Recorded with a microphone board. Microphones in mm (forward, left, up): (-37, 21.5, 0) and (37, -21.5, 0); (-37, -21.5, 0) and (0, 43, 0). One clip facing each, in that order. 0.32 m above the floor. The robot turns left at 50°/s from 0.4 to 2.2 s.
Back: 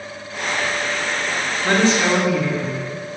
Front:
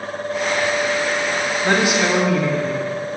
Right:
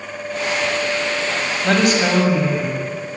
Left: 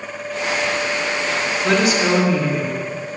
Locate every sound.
1.6 s a woman speaking: 95° right, 2 m; by 3.2 s 120° right, 2 m